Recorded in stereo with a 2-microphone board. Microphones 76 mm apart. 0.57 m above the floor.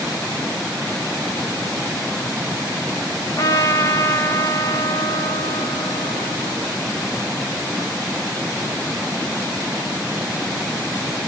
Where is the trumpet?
45° left (ahead or behind), 1.7 m.